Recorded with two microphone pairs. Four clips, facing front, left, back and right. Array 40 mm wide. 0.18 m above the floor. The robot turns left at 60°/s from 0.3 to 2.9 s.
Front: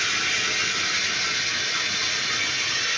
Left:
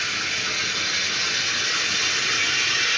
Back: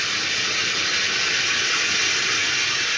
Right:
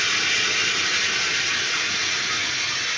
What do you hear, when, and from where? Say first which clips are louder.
0.0 s running water: right 4 dB, even; 90° right, 3.5 m; by 3.0 s 115° left, 3.5 m